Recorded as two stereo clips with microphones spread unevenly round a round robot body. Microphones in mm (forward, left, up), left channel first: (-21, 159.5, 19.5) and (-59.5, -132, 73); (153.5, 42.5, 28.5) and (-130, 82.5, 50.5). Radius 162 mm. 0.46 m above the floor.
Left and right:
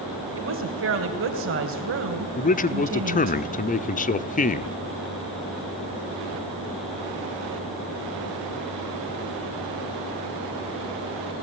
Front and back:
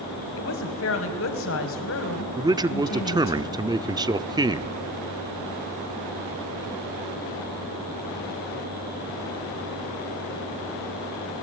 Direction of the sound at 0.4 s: 50° right.